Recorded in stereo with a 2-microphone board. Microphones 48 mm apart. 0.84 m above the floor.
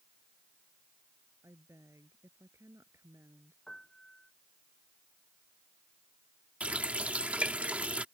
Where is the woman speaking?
80° right.